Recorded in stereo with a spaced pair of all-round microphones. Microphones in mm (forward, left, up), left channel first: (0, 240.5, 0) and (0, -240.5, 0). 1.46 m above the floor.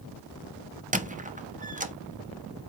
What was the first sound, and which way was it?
A squeak, 15° right (ahead or behind).